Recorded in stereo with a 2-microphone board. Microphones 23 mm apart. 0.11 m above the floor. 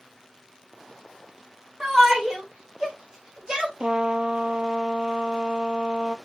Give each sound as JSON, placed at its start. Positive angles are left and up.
{"t": 1.8, "sound": "a shout", "side_deg": -25, "distance_m": 7.0}
{"t": 3.8, "sound": "a trumpet", "side_deg": -50, "distance_m": 0.6}